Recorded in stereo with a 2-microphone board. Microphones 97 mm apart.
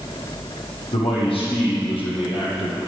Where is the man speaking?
80° left, 6 m; by 2.9 s 75° left (ahead or behind), 5 m.